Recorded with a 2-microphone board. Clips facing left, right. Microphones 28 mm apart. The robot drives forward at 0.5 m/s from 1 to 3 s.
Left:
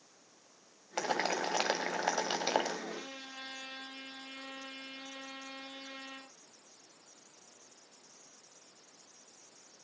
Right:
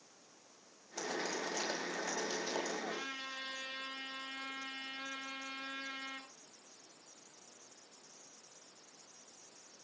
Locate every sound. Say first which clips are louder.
1.0 s boiling: left 6 dB; 70° left (ahead or behind), 2 m
2.9 s a trumpet: right 2 dB; 55° right (ahead or behind), 8 m